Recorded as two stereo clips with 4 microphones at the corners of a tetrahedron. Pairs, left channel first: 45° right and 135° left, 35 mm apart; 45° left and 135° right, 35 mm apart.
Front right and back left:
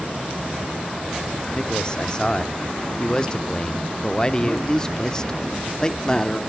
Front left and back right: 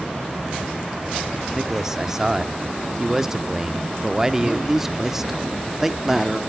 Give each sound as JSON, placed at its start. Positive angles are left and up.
{"t": 1.6, "sound": "a man speaking", "azimuth_deg": -80, "distance_m": 0.7}
{"t": 4.4, "sound": "a man speaking", "azimuth_deg": -75, "distance_m": 0.7}